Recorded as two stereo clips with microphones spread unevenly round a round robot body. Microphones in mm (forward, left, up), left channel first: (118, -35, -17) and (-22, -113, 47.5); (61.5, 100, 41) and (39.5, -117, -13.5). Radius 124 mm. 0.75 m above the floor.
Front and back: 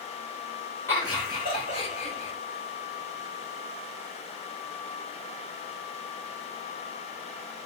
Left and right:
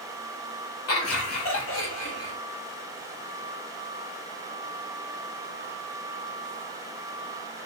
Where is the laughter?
85° left, 1.4 m; by 2.3 s 45° left, 1.6 m.